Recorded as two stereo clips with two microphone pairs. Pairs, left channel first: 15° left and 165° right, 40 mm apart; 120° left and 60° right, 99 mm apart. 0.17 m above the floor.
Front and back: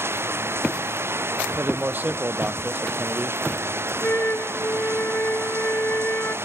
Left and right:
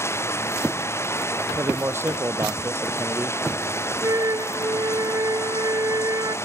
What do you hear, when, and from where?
0.0 s running water: 175° right
1.6 s a man speaking: 125° right
4.0 s a flute: 15° right